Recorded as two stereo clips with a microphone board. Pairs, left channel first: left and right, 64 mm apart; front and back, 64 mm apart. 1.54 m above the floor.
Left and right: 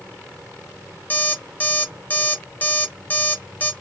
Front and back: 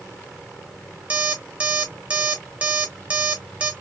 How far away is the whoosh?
I don't hear a whoosh.